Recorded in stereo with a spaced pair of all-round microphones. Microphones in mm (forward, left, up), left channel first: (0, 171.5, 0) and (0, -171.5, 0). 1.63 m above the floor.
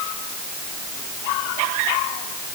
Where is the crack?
I don't hear a crack.